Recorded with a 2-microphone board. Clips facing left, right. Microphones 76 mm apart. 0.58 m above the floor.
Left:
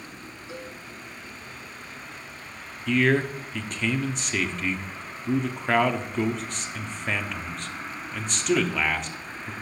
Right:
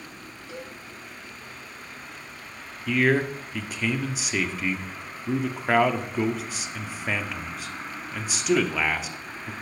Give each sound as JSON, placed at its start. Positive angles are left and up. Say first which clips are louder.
{"t": 0.5, "sound": "a cowbell", "louder": "even", "side_deg": 20, "distance_m": 2.0}
{"t": 2.9, "sound": "a man speaking", "louder": "even", "side_deg": -5, "distance_m": 0.7}